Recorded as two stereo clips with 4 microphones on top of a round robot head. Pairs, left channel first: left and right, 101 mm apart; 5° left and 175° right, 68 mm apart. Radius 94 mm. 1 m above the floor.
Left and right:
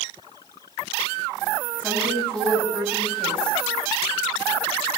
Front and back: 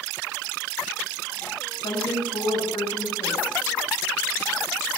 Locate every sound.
1.8 s a woman speaking: 10° left, 6.5 m